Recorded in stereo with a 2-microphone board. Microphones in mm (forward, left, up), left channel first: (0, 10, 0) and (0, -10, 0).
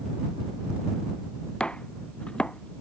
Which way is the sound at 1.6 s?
65° left (ahead or behind).